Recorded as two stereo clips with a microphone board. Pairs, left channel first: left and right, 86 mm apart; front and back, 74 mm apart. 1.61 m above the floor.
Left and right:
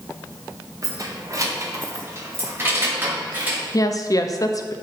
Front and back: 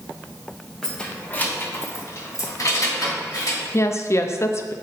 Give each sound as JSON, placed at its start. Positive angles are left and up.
{"t": 0.8, "sound": "keys jangling", "azimuth_deg": -80, "distance_m": 0.9}
{"t": 3.7, "sound": "a woman speaking", "azimuth_deg": 45, "distance_m": 0.5}